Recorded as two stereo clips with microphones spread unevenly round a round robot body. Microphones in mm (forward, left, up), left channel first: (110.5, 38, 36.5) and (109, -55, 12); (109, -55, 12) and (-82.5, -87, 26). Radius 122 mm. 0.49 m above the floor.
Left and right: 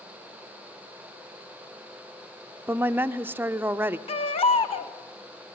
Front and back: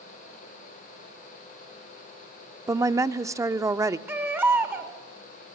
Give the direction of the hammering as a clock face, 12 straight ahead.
No hammering in this recording.